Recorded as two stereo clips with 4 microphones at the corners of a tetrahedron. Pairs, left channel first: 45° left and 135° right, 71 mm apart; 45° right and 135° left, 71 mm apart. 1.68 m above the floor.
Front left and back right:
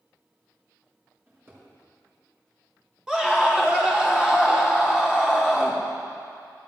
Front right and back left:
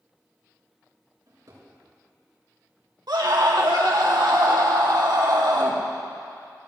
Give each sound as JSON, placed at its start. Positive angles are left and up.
{"t": 1.3, "sound": "a drawer", "azimuth_deg": 170, "distance_m": 5.5}
{"t": 3.1, "sound": "a scream", "azimuth_deg": 145, "distance_m": 2.5}